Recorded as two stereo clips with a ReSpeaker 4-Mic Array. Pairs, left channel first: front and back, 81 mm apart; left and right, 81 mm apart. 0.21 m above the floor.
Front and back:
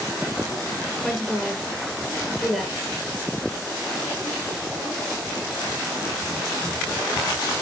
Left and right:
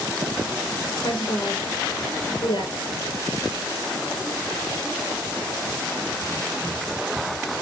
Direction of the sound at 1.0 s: 90° left.